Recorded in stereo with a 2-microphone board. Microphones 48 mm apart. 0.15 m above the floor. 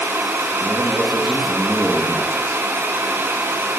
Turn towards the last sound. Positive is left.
turn(degrees=25)  # may be behind; listen again after turning